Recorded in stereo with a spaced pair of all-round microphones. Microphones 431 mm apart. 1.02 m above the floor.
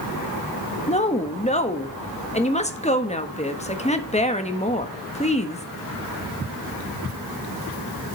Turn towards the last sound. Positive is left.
turn(degrees=15)  # may be behind; listen again after turning